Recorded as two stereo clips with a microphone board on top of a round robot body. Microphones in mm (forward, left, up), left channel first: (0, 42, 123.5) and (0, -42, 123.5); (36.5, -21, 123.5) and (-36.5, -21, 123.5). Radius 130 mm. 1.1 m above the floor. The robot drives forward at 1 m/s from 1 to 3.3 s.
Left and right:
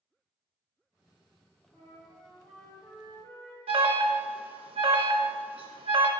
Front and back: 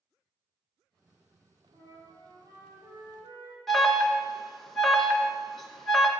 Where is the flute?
155° left, 3 m; by 3.6 s 165° left, 4.5 m.